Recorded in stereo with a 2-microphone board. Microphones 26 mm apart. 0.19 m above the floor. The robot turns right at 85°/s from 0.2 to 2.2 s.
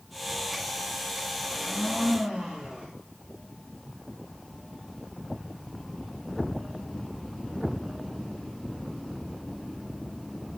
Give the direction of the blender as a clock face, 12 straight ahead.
7 o'clock.